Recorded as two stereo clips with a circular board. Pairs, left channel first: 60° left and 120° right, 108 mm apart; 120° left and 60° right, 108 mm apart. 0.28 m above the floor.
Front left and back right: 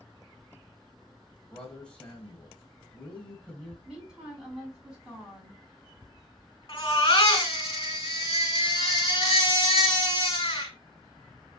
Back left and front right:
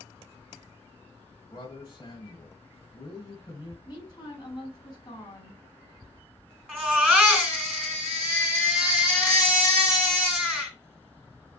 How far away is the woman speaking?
About 2.5 m.